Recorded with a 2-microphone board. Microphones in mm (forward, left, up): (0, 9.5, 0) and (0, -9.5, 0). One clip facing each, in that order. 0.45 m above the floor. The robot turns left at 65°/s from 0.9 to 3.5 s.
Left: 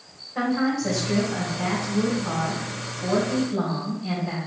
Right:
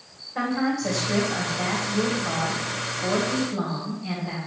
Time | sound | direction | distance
0.3 | a woman speaking | 5° right | 1.9 m